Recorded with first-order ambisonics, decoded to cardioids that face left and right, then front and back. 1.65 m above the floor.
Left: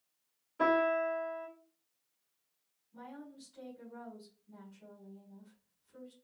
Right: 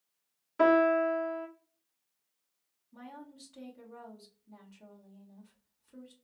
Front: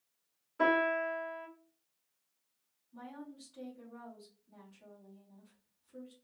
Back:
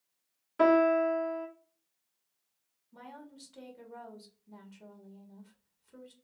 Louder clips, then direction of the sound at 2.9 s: Right 1 dB, even; 145° right.